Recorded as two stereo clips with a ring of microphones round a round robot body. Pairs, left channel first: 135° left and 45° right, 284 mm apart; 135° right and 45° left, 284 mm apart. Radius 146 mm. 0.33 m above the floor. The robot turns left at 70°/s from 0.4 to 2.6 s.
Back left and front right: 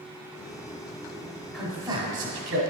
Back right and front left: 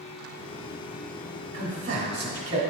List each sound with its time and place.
1.5 s a man speaking: 40° left, 1.3 m; by 2.6 s 30° right, 1.3 m